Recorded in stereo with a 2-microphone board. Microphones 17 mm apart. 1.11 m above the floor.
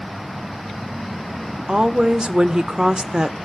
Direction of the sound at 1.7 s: 45° right (ahead or behind).